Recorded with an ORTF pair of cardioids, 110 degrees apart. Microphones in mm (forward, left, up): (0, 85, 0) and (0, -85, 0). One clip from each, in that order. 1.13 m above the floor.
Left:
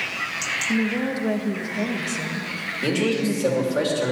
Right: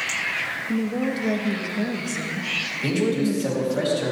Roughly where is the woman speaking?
Ahead.